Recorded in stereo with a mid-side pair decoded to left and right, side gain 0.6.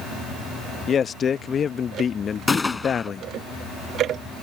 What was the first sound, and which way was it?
A man speaking, 35° left.